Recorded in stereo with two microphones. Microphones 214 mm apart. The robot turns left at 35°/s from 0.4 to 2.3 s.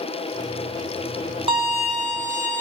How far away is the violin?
About 0.5 m.